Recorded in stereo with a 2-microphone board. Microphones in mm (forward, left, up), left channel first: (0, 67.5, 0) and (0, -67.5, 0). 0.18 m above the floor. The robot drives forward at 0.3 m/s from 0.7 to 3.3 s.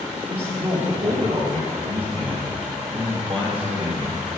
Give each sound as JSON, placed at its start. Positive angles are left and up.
{"t": 0.3, "sound": "a man speaking", "side_deg": -45, "distance_m": 3.5}